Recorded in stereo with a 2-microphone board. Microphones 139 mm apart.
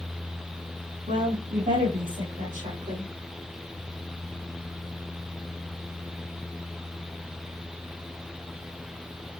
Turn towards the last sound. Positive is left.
turn(degrees=-70)  # may be behind; listen again after turning